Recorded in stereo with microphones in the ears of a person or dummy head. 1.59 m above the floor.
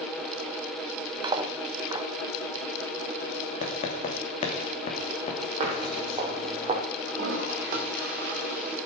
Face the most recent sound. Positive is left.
turn(degrees=-50)  # may be behind; listen again after turning